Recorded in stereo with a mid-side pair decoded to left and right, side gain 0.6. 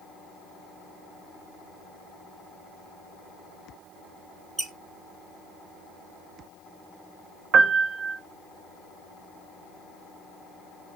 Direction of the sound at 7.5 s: 55° right.